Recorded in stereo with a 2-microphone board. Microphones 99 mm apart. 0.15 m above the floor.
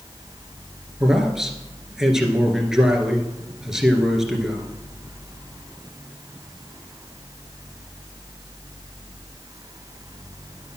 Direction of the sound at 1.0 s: 5° right (ahead or behind).